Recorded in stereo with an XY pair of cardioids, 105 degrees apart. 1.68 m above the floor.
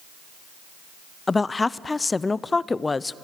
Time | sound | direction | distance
1.3 | a woman speaking | 25° left | 0.5 m